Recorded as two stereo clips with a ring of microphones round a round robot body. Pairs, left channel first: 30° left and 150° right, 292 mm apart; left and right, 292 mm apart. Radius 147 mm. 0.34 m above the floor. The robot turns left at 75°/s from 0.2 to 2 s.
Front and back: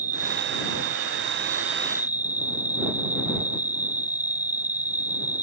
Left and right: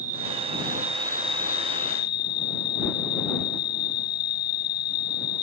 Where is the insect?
95° right; by 5.4 s 130° left.